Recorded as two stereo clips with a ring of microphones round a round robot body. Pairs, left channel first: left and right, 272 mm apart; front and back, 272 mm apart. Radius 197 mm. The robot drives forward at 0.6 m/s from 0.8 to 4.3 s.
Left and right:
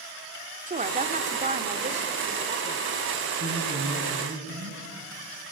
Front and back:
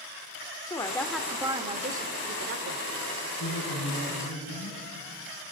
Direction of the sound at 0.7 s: 65° right.